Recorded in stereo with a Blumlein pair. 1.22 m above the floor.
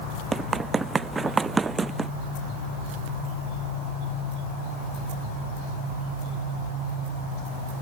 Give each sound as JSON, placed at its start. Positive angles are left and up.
{"t": 0.3, "sound": "running footsteps", "azimuth_deg": -15}